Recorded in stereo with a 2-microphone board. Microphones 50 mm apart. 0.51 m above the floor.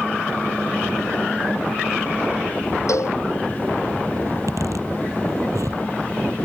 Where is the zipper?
75° right (ahead or behind).